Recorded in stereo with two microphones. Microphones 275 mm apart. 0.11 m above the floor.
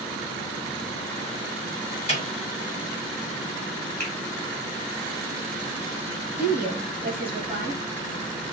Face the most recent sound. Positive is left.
turn(degrees=-35)  # may be behind; listen again after turning